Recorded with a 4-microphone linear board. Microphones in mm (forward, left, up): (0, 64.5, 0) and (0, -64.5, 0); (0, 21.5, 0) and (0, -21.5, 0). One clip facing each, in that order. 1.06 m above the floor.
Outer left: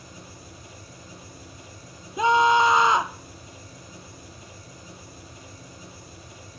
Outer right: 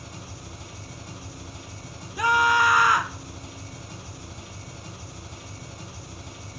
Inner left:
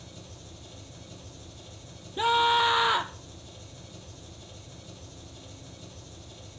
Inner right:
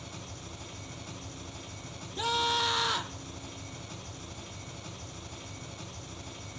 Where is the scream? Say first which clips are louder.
Outer left 3 dB, inner left 7 dB; 25° left (ahead or behind), 0.5 m.